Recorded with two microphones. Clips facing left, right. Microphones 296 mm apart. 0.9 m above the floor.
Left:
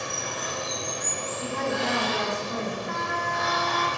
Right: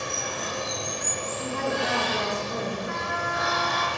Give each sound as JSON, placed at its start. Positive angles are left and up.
{"t": 0.0, "sound": "running water", "side_deg": -35, "distance_m": 1.2}
{"t": 1.4, "sound": "a woman speaking", "side_deg": -20, "distance_m": 0.9}
{"t": 2.9, "sound": "a trumpet", "side_deg": -10, "distance_m": 1.1}